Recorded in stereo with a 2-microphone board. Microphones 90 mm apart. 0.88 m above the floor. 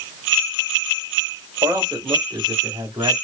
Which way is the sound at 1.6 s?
45° right (ahead or behind).